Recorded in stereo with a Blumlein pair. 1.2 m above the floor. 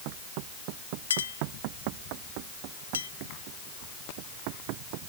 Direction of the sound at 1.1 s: 70° left.